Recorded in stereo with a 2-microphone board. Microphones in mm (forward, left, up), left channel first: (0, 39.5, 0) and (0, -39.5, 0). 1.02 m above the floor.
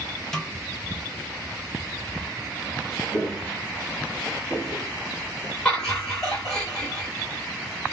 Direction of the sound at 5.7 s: 15° left (ahead or behind).